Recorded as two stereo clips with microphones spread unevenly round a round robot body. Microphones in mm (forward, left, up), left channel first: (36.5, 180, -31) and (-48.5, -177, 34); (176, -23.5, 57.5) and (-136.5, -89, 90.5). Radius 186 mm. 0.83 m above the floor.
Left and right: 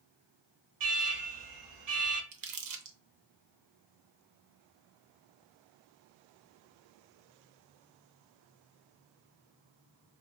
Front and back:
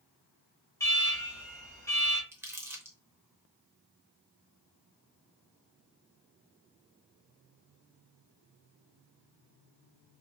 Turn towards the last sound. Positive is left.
turn(degrees=-90)